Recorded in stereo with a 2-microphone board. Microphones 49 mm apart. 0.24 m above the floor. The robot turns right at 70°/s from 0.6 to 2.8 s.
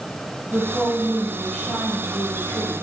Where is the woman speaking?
15° right, 9 m; by 2.8 s 140° left, 9 m.